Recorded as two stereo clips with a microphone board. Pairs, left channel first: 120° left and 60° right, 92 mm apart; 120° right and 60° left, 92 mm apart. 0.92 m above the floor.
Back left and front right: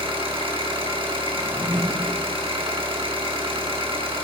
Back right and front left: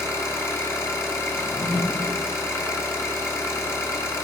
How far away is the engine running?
About 1.1 m.